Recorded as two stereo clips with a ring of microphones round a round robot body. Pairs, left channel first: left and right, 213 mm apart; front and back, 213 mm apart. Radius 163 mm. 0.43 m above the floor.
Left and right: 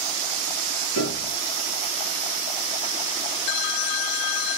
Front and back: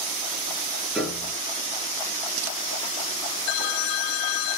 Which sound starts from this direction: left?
A piano, at 0.9 s.